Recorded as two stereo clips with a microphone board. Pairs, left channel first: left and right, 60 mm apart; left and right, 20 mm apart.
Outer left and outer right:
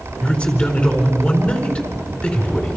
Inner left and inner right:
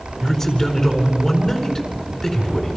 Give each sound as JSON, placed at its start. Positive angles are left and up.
{"t": 0.2, "sound": "a man speaking", "side_deg": 20, "distance_m": 4.0}